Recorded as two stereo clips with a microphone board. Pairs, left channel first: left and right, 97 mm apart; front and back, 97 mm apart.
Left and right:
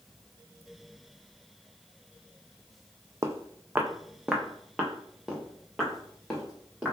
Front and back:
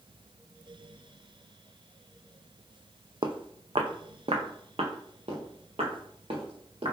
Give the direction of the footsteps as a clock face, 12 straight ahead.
5 o'clock.